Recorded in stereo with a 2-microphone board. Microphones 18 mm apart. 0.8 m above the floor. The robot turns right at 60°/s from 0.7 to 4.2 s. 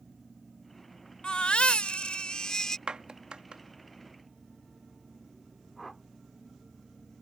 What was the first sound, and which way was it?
A baby crying, 60° left.